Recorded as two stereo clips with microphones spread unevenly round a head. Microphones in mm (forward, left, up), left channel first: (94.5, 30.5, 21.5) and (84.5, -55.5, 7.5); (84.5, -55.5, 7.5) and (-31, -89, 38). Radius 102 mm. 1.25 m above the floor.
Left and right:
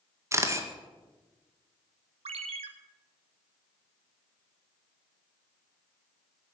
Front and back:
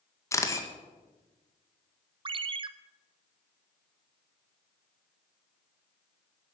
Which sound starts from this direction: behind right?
A ringtone, at 2.2 s.